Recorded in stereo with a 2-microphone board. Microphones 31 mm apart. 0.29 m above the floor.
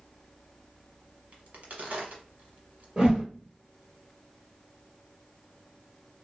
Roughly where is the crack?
Right.